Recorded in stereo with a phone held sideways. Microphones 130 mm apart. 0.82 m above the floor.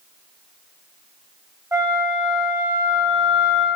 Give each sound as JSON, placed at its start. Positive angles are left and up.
{"t": 1.7, "sound": "a flute", "side_deg": -30, "distance_m": 1.8}